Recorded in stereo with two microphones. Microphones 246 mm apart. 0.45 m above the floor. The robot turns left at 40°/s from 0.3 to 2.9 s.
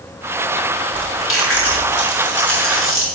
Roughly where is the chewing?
Left.